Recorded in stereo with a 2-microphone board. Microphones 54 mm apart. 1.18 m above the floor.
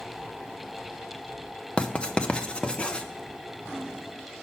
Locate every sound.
1.8 s writing: 20° left (ahead or behind), 0.5 m